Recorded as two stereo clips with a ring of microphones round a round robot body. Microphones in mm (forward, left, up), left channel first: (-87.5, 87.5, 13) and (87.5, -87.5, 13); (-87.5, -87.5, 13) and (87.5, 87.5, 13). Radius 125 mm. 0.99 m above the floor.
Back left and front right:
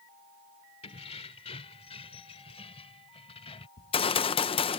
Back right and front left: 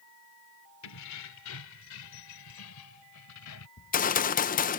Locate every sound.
0.8 s keys jangling: 155° right
3.8 s a gunshot: 170° right